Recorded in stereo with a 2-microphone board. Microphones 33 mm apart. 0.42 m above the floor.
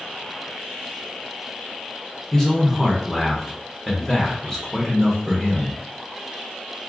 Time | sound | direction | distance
2.3 | a man speaking | 10° left (ahead or behind) | 0.9 m